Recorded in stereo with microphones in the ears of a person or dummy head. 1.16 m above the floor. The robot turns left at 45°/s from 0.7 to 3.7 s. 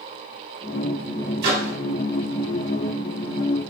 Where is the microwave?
55° right (ahead or behind), 1.5 m; by 1.7 s 70° right (ahead or behind), 1.5 m.